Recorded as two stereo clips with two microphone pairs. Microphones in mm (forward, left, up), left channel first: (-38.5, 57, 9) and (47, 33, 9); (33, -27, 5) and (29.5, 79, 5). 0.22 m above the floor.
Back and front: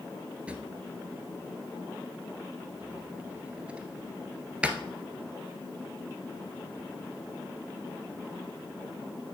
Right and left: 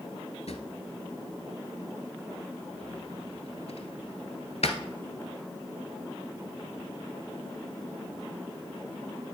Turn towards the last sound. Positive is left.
turn(degrees=-90)